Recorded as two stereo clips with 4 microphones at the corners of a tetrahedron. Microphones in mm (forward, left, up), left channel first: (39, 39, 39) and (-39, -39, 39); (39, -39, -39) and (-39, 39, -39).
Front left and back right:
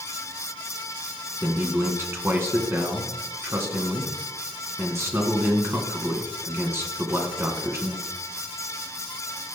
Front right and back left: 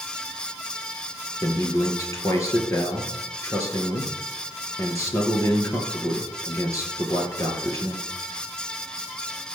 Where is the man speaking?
85° right, 1.9 m.